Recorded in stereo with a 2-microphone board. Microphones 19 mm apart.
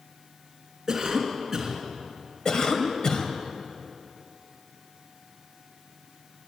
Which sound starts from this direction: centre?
A cough, at 0.9 s.